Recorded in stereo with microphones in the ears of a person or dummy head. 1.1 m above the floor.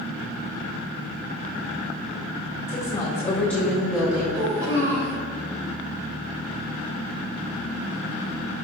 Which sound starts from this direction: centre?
A woman speaking, at 2.7 s.